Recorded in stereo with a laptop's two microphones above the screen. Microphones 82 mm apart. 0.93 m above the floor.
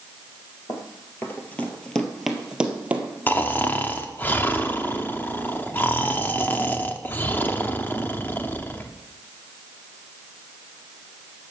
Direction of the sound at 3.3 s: 25° left (ahead or behind).